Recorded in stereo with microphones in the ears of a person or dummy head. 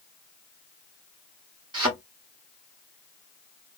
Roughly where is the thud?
Right.